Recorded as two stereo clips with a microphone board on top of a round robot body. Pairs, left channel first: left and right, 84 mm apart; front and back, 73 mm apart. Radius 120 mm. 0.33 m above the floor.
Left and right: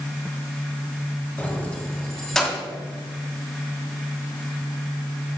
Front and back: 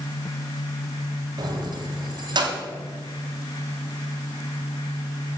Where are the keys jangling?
160° left, 1.8 m; by 2.6 s 175° left, 2.5 m.